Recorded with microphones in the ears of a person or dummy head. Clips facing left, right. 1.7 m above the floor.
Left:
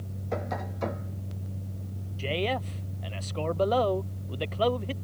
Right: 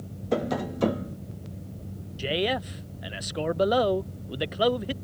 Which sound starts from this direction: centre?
A man speaking, at 2.2 s.